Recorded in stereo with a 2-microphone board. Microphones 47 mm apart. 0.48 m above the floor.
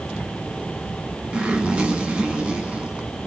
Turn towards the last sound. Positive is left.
turn(degrees=-25)  # may be behind; listen again after turning